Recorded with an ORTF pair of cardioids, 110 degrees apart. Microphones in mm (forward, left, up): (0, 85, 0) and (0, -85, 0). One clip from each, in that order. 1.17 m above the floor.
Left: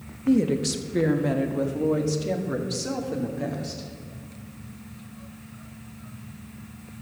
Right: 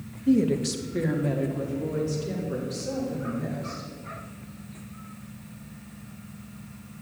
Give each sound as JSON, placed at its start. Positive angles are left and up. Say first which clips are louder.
{"t": 0.3, "sound": "a woman speaking", "louder": "left 1 dB", "azimuth_deg": 5, "distance_m": 1.2}